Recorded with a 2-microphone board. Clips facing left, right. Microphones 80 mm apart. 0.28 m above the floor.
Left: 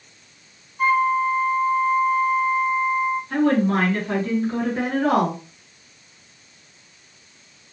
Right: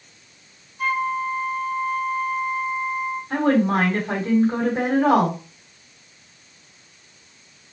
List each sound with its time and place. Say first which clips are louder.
0.8 s a flute: left 5 dB; 35° left (ahead or behind), 1.2 m
3.3 s a woman speaking: right 1 dB; 40° right (ahead or behind), 1.2 m